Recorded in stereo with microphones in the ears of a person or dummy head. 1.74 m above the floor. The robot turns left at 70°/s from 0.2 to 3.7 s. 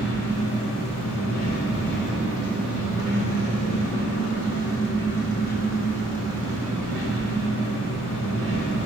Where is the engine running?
125° left, 1.2 m; by 8.9 s 120° right, 1.2 m.